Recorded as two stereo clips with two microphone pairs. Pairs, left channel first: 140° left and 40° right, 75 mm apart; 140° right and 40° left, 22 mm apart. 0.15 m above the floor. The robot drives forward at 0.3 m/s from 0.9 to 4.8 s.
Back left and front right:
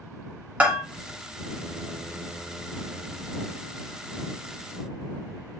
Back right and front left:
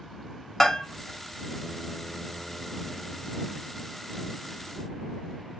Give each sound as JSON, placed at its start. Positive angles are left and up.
{"t": 0.6, "sound": "a bell", "azimuth_deg": -85, "distance_m": 1.0}